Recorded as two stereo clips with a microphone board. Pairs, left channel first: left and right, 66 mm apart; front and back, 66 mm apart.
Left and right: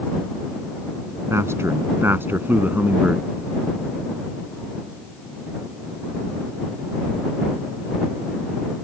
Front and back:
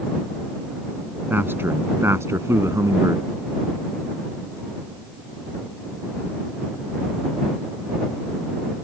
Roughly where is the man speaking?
Behind right.